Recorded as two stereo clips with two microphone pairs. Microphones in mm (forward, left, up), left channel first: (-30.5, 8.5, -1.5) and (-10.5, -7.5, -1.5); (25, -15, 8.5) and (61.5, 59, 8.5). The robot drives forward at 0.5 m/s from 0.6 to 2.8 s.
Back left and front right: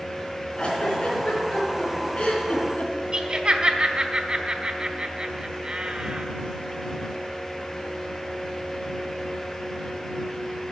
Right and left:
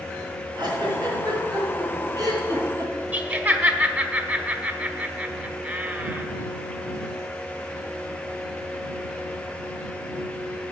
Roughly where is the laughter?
Ahead.